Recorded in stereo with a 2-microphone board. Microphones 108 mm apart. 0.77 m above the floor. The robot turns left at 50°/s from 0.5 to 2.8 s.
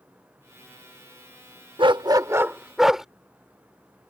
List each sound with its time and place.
1.8 s a dog barking: 125° right; by 3.0 s 175° right